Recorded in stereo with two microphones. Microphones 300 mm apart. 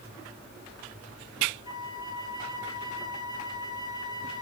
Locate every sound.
1.6 s a flute: 65° left (ahead or behind), 3 m